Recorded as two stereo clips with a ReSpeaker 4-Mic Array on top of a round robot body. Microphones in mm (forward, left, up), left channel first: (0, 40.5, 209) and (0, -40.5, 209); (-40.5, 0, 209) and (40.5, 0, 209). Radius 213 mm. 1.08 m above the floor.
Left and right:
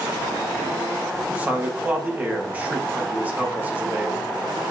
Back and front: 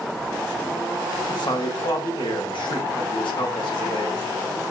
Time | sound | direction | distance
1.3 | a man speaking | 160° right | 1.5 m